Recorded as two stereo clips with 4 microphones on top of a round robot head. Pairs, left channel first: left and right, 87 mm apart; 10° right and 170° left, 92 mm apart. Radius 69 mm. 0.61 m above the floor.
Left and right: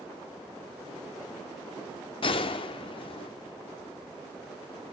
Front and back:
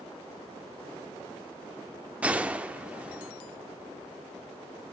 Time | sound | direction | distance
2.2 | a gunshot | 95° left | 0.9 m